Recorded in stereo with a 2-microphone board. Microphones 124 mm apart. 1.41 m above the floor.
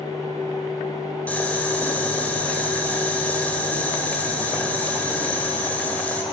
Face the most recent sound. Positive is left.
turn(degrees=10)  # may be behind; listen again after turning